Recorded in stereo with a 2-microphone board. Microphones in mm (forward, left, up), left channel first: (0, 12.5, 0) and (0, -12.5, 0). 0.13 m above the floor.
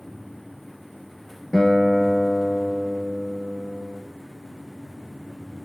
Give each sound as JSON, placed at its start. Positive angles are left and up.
{"t": 1.5, "sound": "a guitar", "side_deg": 10, "distance_m": 0.6}